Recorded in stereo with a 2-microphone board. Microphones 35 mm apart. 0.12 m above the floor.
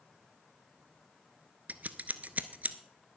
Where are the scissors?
50° right (ahead or behind), 0.6 m.